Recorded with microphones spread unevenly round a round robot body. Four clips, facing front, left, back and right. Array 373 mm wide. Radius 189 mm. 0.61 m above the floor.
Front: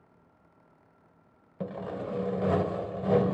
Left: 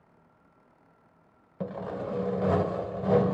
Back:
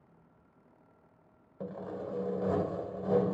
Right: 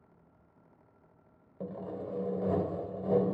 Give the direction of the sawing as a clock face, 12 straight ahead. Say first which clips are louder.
Left 5 dB, front 4 dB; 10 o'clock.